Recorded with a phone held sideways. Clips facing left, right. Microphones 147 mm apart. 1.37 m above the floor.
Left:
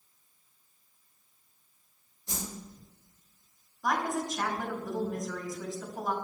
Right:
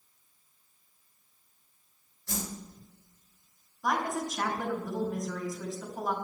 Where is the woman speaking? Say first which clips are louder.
Even; 5° left (ahead or behind), 4 m.